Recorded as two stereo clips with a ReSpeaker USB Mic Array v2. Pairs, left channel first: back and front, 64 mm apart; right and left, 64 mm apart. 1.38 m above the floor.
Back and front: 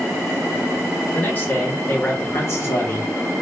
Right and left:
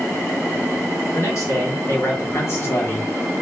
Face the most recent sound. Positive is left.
turn(degrees=-145)